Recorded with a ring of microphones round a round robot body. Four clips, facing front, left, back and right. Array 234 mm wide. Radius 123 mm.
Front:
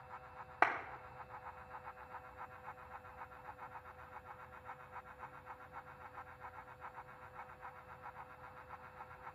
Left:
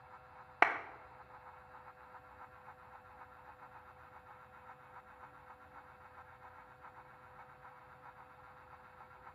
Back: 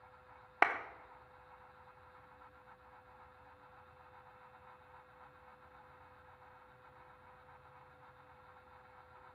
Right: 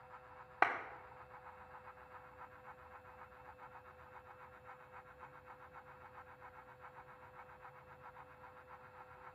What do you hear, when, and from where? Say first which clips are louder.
0.6 s a clap: left 3 dB, back 2 dB; 130° left, 0.9 m